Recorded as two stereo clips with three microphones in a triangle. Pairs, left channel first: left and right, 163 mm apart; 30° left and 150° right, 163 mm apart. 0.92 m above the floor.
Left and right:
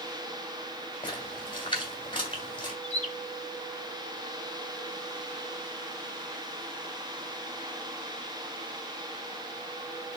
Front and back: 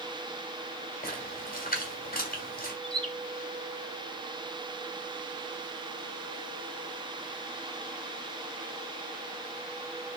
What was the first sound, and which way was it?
A splash, 35° left.